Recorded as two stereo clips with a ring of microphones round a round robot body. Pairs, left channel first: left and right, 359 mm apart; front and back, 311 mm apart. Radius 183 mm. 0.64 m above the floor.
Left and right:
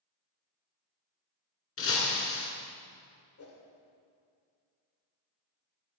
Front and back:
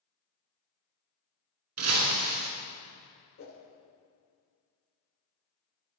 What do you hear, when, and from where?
1.8 s breaking glass: 145° left, 2 m
3.4 s a whoosh: 45° left, 1.9 m